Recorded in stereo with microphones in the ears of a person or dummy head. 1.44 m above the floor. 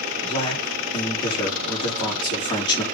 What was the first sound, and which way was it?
A man speaking, 20° left (ahead or behind).